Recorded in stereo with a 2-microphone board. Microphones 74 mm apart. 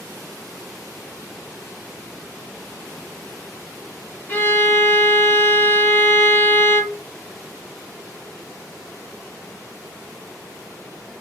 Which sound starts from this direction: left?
A violin, at 4.3 s.